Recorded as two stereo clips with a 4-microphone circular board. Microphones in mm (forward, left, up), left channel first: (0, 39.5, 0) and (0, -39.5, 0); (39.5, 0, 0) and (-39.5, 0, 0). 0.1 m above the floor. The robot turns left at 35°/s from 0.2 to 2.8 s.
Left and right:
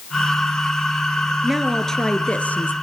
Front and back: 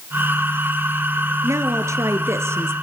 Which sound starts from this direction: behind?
A woman speaking, at 1.4 s.